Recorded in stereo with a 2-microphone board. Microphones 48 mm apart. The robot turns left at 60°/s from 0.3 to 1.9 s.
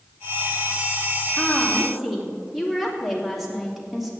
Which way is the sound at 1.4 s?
30° left.